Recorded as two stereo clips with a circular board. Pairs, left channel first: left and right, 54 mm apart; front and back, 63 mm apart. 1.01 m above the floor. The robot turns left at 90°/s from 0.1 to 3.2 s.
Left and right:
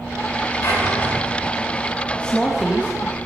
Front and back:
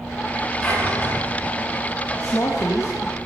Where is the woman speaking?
25° left, 1.7 m; by 3.2 s 60° right, 1.7 m.